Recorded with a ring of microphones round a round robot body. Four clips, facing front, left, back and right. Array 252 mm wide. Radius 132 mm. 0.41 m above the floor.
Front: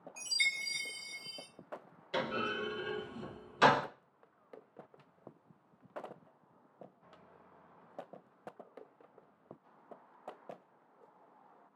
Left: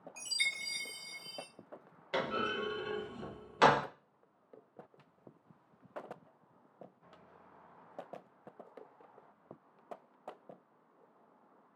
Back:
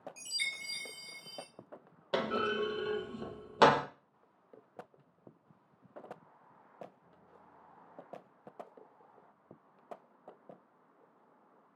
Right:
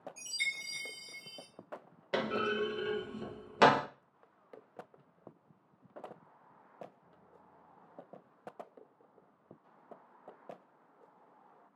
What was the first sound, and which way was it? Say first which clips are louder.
A chime: left 4 dB, front 5 dB; 105° left.